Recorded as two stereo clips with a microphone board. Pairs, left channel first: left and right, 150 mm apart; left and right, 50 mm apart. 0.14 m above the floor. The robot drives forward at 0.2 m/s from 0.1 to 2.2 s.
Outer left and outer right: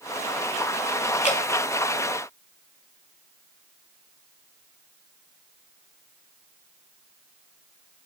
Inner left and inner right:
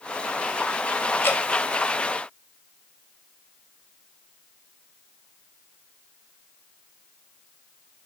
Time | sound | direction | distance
1.2 | dripping | 50° left (ahead or behind) | 0.8 m